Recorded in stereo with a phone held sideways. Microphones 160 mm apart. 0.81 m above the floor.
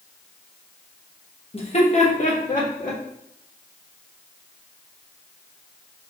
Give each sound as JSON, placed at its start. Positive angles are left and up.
{"t": 1.5, "sound": "laughter", "side_deg": 35, "distance_m": 1.1}